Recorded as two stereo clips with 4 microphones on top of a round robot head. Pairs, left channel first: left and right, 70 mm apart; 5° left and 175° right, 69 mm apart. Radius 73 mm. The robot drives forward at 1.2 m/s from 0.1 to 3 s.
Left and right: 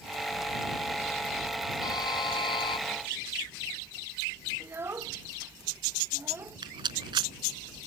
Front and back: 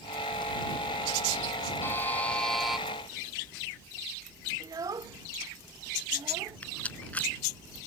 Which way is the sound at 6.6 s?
70° right.